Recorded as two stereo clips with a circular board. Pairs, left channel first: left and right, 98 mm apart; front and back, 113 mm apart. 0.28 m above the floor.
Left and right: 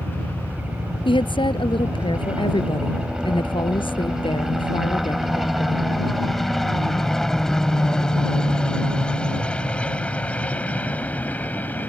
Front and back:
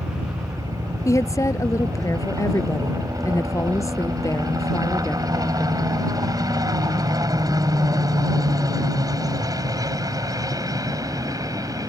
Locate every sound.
0.0 s a helicopter: 150° right; by 11.9 s 150° left
1.1 s a woman speaking: 60° left